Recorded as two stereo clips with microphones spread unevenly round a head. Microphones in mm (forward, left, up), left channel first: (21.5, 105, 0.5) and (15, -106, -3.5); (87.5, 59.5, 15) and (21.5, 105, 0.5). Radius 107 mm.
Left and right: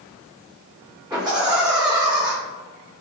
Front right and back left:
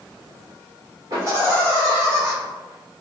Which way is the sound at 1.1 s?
165° right.